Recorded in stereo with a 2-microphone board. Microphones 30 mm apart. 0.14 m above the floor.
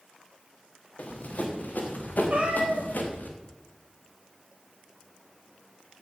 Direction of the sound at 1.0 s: 50° left (ahead or behind).